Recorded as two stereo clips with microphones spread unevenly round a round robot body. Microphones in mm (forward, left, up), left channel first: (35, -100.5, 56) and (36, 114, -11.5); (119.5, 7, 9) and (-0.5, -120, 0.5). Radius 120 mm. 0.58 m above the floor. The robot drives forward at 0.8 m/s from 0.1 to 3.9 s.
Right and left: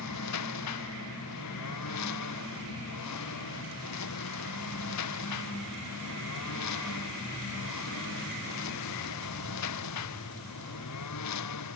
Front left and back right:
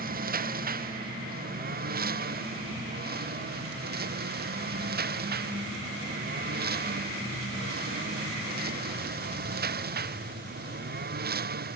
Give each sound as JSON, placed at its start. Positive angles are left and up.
{"t": 0.0, "sound": "a lawn mower", "azimuth_deg": -100}